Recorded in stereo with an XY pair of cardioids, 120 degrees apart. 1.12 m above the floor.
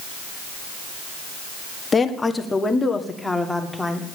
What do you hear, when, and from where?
1.9 s a woman speaking: 30° left, 1.5 m; by 4.0 s 5° left, 2.5 m